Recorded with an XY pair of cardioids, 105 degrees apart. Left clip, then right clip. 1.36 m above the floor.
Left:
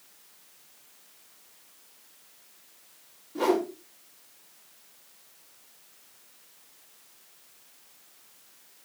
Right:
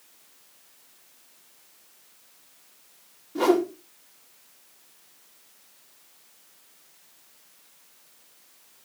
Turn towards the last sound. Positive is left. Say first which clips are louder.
# right 4 dB
turn(degrees=-25)